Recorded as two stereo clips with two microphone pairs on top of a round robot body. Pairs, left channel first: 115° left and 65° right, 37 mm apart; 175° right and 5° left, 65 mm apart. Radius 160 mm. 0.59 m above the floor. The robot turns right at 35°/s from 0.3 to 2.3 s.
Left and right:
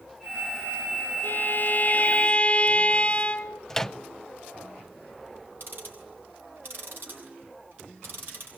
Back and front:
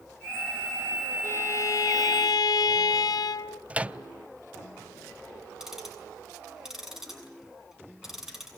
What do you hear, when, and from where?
1.2 s a violin: 140° left, 0.9 m; by 3.6 s straight behind, 0.9 m
3.7 s a microwave: 40° left, 0.6 m
5.6 s ticking: 75° right, 7 m